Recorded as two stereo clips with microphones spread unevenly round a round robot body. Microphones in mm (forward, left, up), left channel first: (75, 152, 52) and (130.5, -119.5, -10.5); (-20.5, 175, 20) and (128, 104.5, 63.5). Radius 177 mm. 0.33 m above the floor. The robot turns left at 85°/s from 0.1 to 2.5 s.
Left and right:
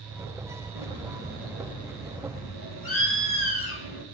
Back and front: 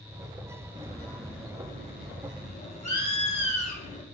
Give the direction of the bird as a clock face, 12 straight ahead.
3 o'clock.